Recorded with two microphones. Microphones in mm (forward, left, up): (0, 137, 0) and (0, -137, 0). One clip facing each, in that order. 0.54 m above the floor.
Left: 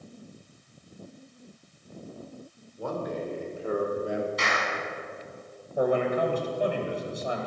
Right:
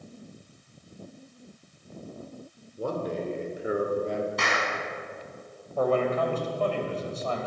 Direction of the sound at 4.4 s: 60° right (ahead or behind).